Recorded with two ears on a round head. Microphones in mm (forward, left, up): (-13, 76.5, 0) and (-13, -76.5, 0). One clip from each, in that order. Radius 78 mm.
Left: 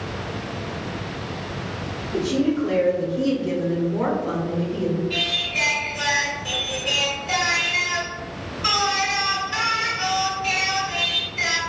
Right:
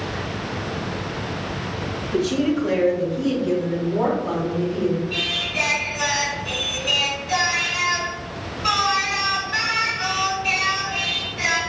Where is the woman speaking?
45° right (ahead or behind), 0.9 m; by 5.0 s 55° left (ahead or behind), 2.5 m.